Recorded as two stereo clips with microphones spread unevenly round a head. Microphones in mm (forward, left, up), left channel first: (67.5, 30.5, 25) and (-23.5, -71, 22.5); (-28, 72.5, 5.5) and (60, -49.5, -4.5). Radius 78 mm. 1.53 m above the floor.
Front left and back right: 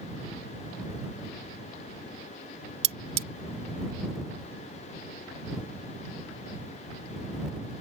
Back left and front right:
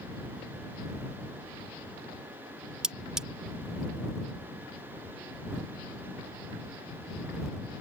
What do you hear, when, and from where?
2.8 s cutlery clinking: 145° right